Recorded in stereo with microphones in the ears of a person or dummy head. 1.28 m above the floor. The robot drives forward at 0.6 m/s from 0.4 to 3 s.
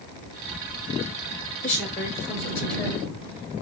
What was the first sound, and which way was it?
A woman speaking, 40° left (ahead or behind).